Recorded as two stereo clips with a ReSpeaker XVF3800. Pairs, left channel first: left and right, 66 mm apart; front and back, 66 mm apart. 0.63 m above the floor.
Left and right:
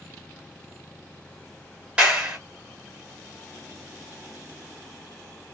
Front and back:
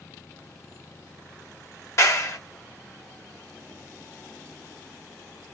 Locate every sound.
2.0 s a clap: 25° right, 1.3 m